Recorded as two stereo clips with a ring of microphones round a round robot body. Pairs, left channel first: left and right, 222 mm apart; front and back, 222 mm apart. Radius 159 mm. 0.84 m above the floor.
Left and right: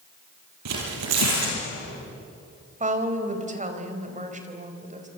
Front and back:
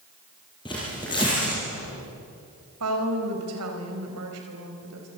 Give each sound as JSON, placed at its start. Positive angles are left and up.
{"t": 0.7, "sound": "tearing paper", "azimuth_deg": -75, "distance_m": 6.5}
{"t": 2.8, "sound": "a woman speaking", "azimuth_deg": -145, "distance_m": 4.5}